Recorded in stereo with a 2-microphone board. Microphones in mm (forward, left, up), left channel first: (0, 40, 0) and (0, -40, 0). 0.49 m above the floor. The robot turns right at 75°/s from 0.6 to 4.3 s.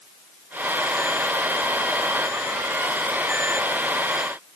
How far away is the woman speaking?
No woman speaking in this recording.